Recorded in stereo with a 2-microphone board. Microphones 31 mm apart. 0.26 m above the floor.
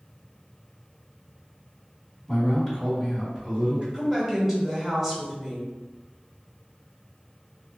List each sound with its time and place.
2.3 s a man speaking: 5° left (ahead or behind), 1.9 m; by 3.8 s 30° right (ahead or behind), 2 m
3.9 s a woman speaking: 10° right (ahead or behind), 0.9 m